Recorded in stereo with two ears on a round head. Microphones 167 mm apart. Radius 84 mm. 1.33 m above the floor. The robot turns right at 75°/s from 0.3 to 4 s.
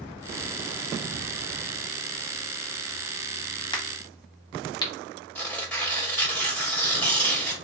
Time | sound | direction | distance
3.7 | a crack | 25° left (ahead or behind) | 1.2 m
5.3 | tearing paper | 10° left (ahead or behind) | 1.6 m